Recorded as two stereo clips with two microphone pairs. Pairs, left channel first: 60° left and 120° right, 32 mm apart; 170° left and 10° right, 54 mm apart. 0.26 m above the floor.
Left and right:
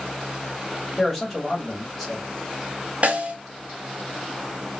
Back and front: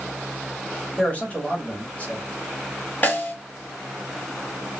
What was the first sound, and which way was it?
A man speaking, 140° left.